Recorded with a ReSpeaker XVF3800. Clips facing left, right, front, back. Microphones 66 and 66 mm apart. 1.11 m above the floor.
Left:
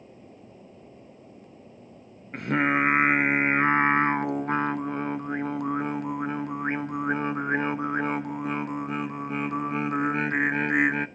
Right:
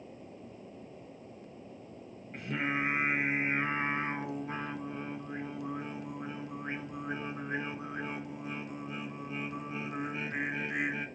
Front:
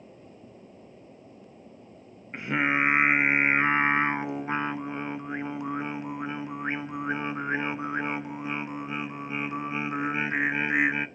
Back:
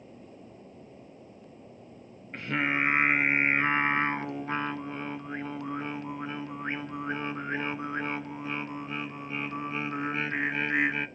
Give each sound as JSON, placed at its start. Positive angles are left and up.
{"t": 2.3, "sound": "singing", "azimuth_deg": 70, "distance_m": 0.6}